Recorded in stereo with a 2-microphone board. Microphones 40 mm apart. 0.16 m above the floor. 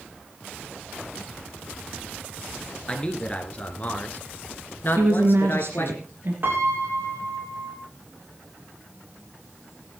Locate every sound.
2.9 s a man speaking: 25° left (ahead or behind), 2 m; by 6.0 s 60° left (ahead or behind), 2.5 m
5.0 s a woman speaking: 60° right (ahead or behind), 3 m
6.4 s a piano: 55° right (ahead or behind), 3.5 m